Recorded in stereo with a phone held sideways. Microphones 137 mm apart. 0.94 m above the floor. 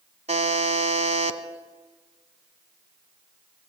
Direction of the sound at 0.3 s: 55° right (ahead or behind).